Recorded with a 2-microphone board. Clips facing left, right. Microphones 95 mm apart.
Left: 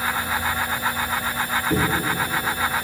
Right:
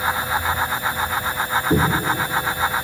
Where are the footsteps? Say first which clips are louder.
Right 4 dB; 15° right (ahead or behind), 1.3 m; by 2.9 s 5° left (ahead or behind), 0.9 m.